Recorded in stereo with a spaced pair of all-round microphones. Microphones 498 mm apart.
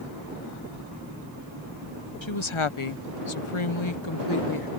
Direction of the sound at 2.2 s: 65° left (ahead or behind).